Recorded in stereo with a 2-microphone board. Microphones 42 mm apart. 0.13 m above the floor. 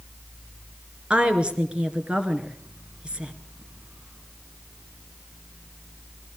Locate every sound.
1.1 s a woman speaking: 25° right (ahead or behind), 2 m